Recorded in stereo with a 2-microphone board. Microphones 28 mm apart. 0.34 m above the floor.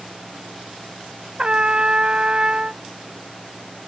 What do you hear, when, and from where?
1.4 s a trumpet: 35° right (ahead or behind)